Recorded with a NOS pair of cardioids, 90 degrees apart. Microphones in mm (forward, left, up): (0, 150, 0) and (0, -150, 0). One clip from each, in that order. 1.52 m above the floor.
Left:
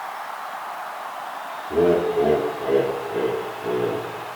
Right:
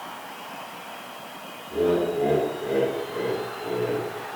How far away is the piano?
No piano in this recording.